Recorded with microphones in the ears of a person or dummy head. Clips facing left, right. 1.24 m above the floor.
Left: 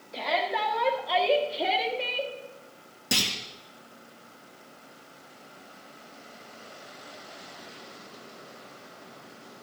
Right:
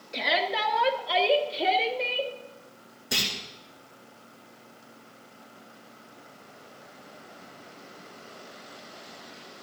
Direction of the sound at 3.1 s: 50° left (ahead or behind).